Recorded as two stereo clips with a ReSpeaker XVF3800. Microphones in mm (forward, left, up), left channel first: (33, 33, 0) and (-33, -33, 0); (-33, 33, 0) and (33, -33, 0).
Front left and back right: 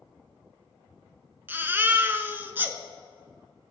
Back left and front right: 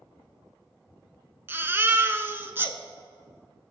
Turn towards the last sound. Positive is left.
turn(degrees=-85)